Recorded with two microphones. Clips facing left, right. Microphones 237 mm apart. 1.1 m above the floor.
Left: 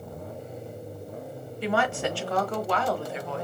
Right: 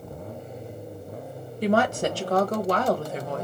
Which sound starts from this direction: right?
A woman speaking, at 1.6 s.